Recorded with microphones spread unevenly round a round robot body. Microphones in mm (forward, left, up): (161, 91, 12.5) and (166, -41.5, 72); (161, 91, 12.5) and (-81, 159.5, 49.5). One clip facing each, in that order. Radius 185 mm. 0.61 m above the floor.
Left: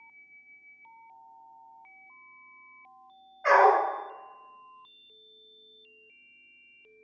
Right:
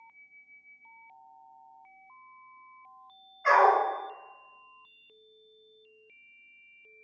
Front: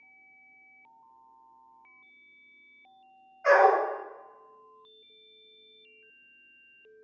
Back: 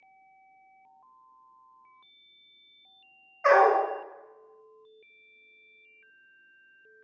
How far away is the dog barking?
About 0.7 m.